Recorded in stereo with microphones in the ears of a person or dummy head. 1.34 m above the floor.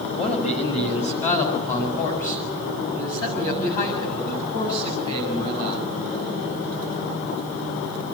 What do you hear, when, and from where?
0.1 s a man speaking: 35° left (ahead or behind), 2.5 m; by 5.8 s 45° left (ahead or behind), 9.5 m